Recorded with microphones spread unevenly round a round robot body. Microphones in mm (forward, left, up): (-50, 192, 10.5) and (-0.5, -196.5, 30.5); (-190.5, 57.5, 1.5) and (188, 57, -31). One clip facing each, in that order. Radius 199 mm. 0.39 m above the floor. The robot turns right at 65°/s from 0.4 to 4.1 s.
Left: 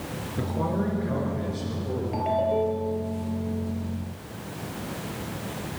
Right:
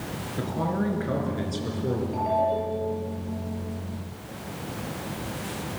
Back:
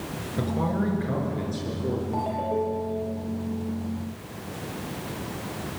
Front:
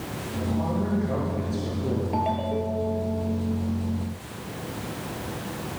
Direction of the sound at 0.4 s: 170° right.